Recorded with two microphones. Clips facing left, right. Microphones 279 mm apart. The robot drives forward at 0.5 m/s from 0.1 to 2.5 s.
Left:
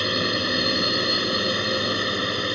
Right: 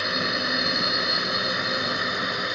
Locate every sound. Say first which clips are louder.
0.0 s a drone: left 4 dB; 40° left (ahead or behind)